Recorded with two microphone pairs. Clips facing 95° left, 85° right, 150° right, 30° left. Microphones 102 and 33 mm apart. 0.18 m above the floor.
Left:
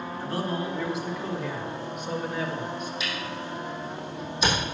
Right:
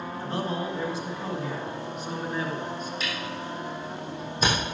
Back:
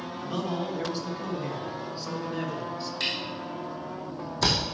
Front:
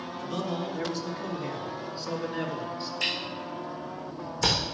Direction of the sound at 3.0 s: 130° right.